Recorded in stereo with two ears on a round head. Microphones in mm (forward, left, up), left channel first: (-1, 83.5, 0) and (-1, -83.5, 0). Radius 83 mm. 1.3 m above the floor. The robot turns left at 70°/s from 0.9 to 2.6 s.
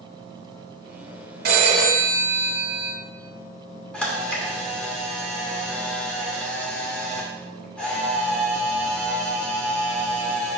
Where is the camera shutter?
5° left (ahead or behind), 2.5 m.